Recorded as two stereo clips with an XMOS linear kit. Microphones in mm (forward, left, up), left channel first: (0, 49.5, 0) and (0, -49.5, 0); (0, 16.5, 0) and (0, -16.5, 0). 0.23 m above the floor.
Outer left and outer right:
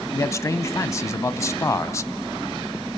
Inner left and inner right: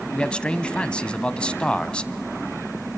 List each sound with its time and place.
0.1 s a man speaking: 30° left (ahead or behind), 1.2 m